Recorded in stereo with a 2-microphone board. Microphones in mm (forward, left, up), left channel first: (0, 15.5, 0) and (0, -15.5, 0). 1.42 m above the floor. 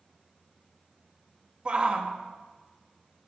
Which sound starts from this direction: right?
A shout, at 1.6 s.